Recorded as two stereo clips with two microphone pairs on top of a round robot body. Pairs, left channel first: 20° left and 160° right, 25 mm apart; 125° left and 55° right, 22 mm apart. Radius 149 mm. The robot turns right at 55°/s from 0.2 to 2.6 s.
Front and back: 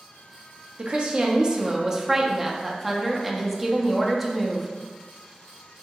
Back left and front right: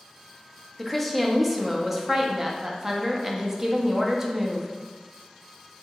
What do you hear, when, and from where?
0.8 s a woman speaking: 155° right, 0.6 m; by 4.7 s 60° right, 0.6 m